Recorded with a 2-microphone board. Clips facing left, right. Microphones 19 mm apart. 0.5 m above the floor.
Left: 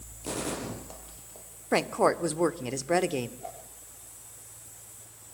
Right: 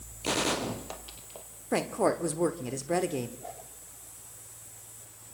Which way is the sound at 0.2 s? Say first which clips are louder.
Right 5 dB; 45° right (ahead or behind).